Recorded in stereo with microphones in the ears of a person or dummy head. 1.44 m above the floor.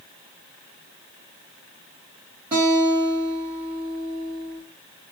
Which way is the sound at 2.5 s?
15° right (ahead or behind).